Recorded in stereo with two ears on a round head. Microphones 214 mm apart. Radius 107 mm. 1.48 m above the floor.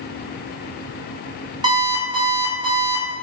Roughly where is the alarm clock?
Centre.